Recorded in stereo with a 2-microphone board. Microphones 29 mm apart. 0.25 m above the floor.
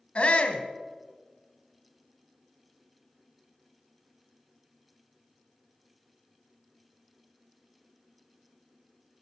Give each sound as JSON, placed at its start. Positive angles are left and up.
{"t": 0.1, "sound": "a shout", "side_deg": 45, "distance_m": 1.3}